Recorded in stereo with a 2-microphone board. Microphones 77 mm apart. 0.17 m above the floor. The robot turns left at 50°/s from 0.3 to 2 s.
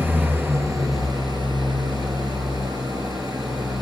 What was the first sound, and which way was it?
An engine running, 30° right.